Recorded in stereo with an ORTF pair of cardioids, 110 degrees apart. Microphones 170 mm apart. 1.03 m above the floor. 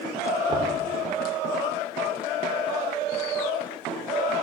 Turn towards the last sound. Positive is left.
turn(degrees=-25)